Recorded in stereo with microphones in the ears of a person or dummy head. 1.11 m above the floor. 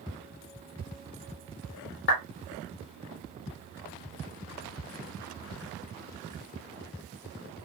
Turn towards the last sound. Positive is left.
turn(degrees=55)  # may be behind; listen again after turning